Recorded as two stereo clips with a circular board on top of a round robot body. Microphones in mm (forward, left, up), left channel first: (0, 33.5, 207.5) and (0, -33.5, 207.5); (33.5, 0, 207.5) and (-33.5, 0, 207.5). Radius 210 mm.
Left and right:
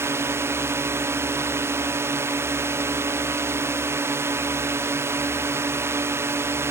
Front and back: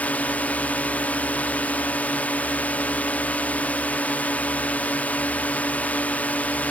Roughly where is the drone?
Ahead right.